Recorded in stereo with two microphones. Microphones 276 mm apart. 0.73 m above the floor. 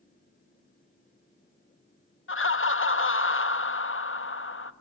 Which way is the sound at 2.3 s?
50° left (ahead or behind).